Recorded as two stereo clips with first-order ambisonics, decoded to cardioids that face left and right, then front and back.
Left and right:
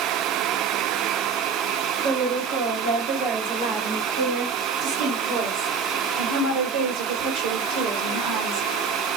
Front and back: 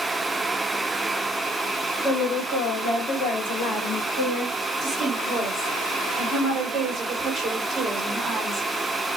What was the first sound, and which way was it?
A woman speaking, 60° right.